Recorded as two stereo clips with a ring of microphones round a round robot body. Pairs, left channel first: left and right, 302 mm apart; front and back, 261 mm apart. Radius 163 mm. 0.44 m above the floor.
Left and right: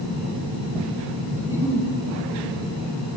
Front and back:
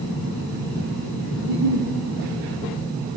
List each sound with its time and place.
1.4 s a giggle: 170° right, 2.5 m